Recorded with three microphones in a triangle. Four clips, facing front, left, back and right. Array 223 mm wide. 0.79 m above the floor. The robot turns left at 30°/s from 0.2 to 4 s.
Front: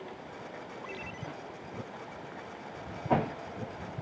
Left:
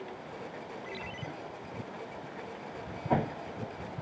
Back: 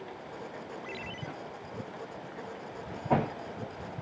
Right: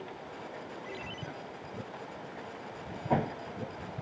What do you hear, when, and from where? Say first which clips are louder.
0.8 s a ringtone: left 1 dB, back 1 dB; straight behind; by 1.3 s 165° left